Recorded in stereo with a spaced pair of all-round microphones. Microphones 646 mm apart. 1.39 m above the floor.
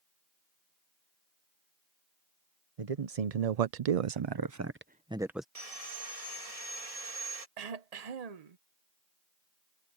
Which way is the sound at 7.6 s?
70° right (ahead or behind).